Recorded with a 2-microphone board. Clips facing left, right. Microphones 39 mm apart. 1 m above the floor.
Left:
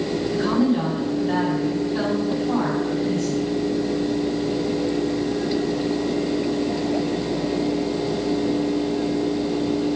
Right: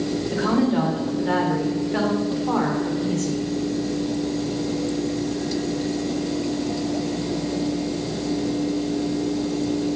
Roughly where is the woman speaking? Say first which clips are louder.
Even; right.